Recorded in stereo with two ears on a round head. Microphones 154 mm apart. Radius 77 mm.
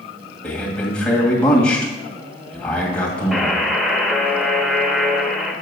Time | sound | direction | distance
0.4 | a man speaking | 5° left (ahead or behind) | 2 m
3.3 | a buzzer | centre (ahead or behind) | 0.9 m